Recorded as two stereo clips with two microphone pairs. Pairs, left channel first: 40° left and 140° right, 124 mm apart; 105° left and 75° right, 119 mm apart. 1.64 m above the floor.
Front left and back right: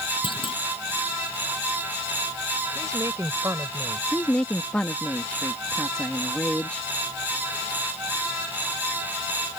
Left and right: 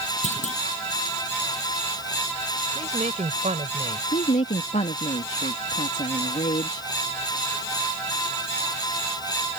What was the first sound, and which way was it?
A clunk, 85° left.